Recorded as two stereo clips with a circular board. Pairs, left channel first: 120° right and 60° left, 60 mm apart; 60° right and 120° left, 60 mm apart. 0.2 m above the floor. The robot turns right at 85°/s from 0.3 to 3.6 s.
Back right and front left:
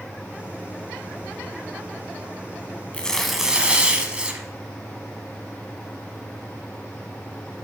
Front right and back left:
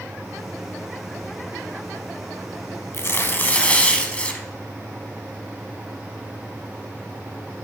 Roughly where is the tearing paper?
Ahead right.